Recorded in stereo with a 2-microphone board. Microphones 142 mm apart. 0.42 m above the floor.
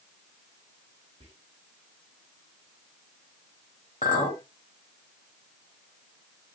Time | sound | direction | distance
1.2 | whispering | 45° right (ahead or behind) | 1.1 m
4.0 | a clink | 60° left (ahead or behind) | 1.4 m